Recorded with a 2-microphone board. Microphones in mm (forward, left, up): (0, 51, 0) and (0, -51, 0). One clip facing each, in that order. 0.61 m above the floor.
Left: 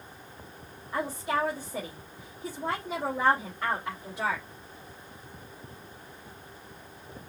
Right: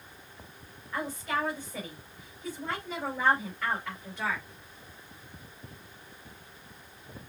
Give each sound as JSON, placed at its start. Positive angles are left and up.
{"t": 0.9, "sound": "a woman speaking", "side_deg": 30, "distance_m": 3.5}